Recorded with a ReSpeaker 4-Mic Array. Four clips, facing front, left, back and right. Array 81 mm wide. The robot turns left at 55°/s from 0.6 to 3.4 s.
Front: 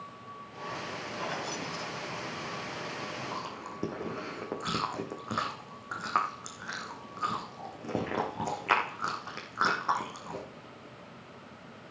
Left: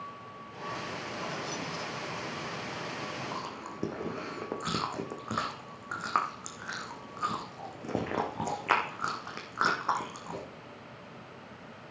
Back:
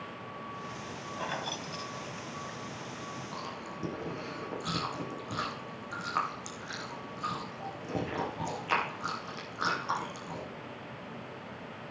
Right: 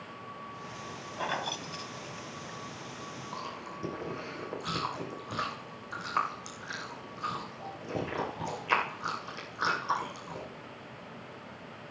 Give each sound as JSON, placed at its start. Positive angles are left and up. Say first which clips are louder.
{"t": 1.2, "sound": "keys jangling", "louder": "right 6 dB, even", "azimuth_deg": -90, "distance_m": 1.2}
{"t": 3.3, "sound": "chewing", "louder": "left 1 dB, front 2 dB", "azimuth_deg": 55, "distance_m": 4.5}